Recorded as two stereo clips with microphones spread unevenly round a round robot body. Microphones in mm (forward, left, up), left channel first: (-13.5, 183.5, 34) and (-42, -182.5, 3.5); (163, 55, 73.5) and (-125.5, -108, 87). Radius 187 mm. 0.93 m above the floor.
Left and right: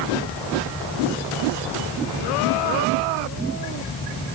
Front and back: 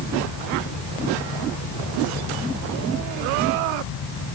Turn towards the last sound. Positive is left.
No sound to turn to.